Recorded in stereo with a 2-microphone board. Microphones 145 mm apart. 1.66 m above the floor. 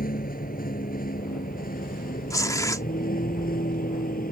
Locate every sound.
0.0 s a vehicle: 85° left; by 4.3 s 80° left
2.3 s tearing paper: 25° left (ahead or behind)